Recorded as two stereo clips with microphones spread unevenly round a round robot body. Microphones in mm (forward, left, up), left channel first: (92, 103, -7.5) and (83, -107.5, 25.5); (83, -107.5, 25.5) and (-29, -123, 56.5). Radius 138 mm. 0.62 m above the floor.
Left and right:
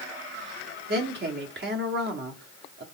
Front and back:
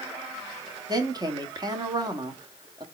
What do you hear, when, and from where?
0.9 s a woman speaking: 115° right, 1.1 m